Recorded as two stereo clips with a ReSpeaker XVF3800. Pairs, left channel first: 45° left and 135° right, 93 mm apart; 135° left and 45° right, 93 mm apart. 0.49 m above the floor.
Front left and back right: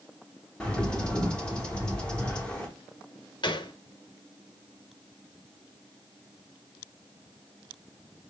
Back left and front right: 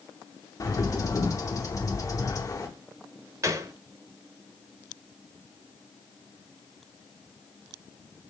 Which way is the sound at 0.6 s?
120° left.